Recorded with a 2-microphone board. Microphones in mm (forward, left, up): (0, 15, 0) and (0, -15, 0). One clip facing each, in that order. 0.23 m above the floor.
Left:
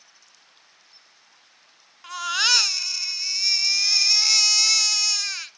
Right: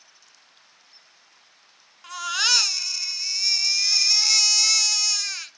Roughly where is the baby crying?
Centre.